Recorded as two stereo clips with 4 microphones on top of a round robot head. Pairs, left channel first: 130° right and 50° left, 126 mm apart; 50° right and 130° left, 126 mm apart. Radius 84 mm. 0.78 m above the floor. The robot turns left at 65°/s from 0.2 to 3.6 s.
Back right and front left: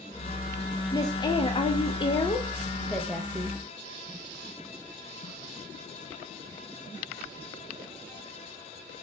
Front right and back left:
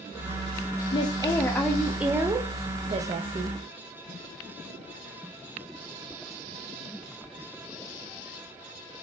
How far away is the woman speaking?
About 0.6 m.